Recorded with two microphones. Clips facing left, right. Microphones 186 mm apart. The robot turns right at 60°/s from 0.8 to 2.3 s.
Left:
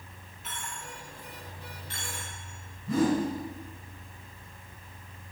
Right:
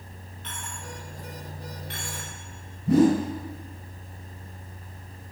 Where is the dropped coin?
5° left (ahead or behind), 4.5 m; by 2.4 s 85° right, 4.5 m.